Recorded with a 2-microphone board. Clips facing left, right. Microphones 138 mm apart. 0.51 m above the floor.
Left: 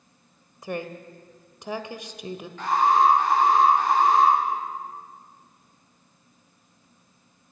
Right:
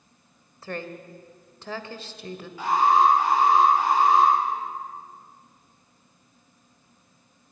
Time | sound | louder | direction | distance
0.6 | a woman speaking | left 2 dB | 15° left (ahead or behind) | 1.6 m
2.6 | an alarm | even | 10° right (ahead or behind) | 8.5 m